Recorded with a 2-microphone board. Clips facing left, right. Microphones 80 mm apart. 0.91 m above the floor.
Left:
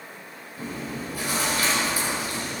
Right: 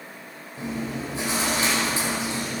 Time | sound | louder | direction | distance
0.6 | chewing | right 3 dB | 25° right (ahead or behind) | 5 m